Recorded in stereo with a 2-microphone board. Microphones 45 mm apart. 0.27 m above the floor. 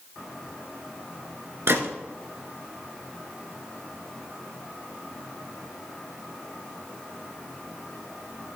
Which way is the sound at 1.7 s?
60° right (ahead or behind).